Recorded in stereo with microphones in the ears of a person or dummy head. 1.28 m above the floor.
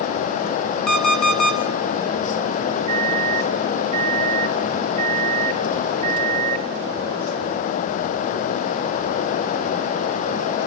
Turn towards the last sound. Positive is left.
turn(degrees=-35)  # may be behind; listen again after turning